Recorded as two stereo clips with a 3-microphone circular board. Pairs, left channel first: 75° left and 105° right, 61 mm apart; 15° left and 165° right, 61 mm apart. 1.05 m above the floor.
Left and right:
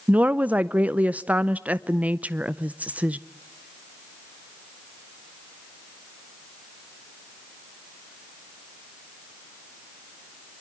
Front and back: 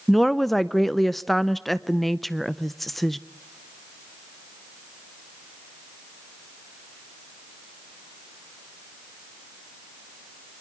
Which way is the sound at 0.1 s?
65° right.